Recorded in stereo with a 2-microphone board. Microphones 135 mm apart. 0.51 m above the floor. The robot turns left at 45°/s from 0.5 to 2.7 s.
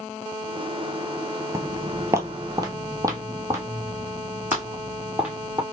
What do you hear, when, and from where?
1.5 s footsteps: 25° right (ahead or behind), 0.6 m; by 5.6 s 15° right (ahead or behind), 2.5 m